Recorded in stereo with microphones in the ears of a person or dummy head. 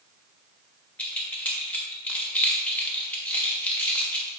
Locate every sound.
1.0 s keys jangling: 10° left (ahead or behind), 1.3 m